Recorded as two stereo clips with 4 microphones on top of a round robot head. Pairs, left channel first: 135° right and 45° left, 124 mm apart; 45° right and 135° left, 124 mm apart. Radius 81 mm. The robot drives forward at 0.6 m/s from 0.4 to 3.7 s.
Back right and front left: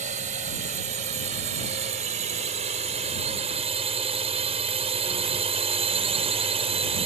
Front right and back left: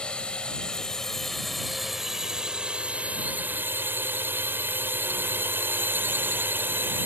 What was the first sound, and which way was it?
A drone, 40° left.